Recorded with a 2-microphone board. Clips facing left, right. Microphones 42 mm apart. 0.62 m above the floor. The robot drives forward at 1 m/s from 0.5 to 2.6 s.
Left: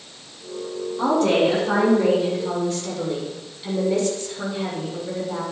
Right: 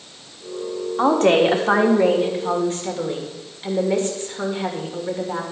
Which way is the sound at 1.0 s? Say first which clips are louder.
Right 3 dB; 55° right (ahead or behind).